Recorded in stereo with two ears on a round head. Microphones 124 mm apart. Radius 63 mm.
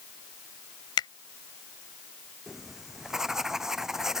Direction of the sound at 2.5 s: 5° right (ahead or behind).